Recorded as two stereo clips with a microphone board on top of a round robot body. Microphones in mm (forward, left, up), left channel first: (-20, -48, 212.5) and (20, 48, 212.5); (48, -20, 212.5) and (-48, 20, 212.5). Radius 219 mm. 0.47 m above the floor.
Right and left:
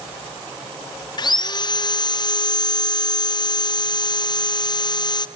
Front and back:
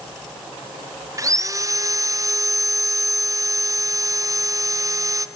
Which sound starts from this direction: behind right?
Sawing, at 1.2 s.